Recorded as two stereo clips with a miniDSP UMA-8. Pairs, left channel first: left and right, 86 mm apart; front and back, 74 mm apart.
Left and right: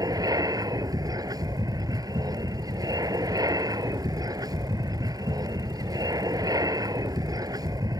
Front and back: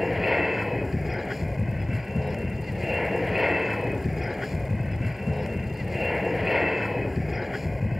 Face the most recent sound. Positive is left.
turn(degrees=-90)